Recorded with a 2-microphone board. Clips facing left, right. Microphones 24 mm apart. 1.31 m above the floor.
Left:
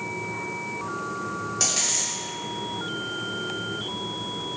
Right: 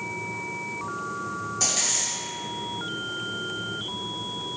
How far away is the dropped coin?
About 1.7 m.